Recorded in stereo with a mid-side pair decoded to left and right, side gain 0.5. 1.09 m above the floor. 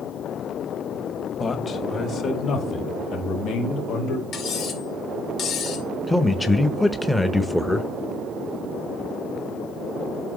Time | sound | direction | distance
1.4 | a man speaking | 35° left | 1.8 m
4.3 | cutlery clinking | 60° left | 2 m
6.1 | a man speaking | 10° left | 0.7 m